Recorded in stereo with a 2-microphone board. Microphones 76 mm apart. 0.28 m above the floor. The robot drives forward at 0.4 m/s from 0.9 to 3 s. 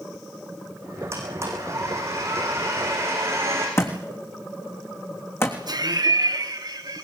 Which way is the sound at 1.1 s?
40° right (ahead or behind).